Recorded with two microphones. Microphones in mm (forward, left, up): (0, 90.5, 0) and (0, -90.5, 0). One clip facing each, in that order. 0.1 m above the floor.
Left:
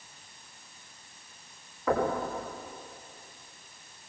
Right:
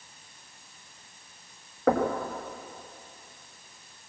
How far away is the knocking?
About 7 m.